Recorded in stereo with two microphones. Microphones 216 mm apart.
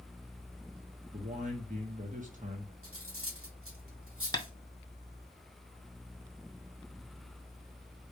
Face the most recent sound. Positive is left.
turn(degrees=20)  # may be behind; listen again after turning